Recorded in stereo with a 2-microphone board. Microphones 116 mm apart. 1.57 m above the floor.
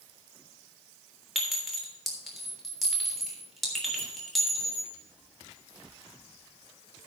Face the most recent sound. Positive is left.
turn(degrees=0)  # may be behind; listen again after turning